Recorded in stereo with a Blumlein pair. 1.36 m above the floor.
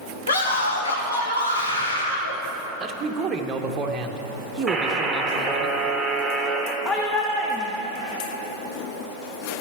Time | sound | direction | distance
0.3 | a scream | 65° left | 2.5 m
2.8 | a man speaking | 20° right | 1.0 m
4.7 | a buzzer | straight ahead | 1.6 m
6.8 | a shout | 15° left | 0.9 m